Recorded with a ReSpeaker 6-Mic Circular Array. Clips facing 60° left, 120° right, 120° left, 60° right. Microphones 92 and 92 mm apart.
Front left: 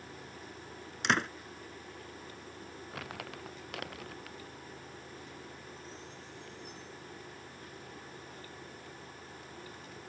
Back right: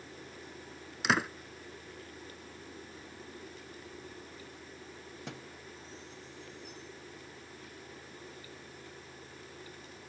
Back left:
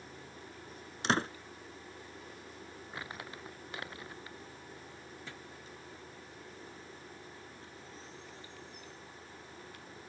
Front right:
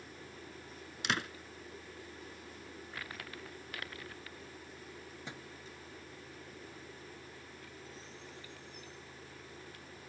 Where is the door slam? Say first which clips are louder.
Back right 1 dB, back left 5 dB; 155° left.